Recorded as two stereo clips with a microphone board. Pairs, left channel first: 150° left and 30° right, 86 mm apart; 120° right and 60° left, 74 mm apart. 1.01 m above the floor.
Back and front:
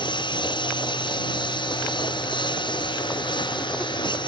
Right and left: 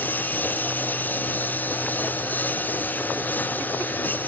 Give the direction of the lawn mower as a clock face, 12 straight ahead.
6 o'clock.